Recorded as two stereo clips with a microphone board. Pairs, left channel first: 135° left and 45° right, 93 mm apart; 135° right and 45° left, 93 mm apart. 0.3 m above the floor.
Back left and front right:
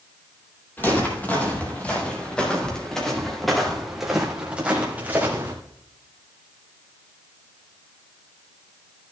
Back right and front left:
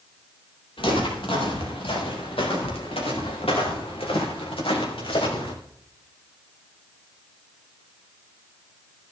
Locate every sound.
0.8 s footsteps: 155° right, 5.5 m; by 5.5 s 110° right, 3 m